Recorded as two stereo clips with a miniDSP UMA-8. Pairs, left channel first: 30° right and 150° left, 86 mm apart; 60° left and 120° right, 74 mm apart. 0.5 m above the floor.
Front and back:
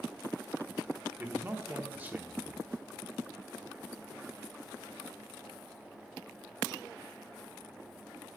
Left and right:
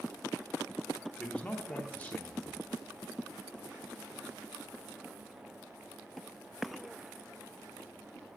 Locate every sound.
1.2 s a man speaking: 110° left, 0.7 m